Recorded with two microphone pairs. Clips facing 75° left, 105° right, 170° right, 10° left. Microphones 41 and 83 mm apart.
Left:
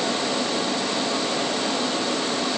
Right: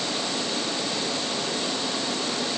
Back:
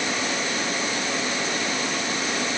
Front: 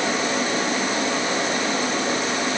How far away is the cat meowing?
I don't hear a cat meowing.